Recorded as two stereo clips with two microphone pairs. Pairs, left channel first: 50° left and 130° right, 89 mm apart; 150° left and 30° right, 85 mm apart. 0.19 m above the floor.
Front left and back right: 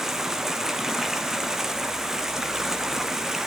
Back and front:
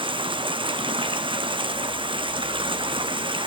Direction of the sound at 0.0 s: 45° right.